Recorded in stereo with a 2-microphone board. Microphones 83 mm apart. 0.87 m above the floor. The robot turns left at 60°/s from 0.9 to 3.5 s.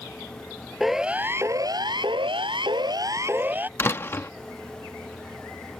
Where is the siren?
5° right (ahead or behind); by 3.7 s 25° right (ahead or behind).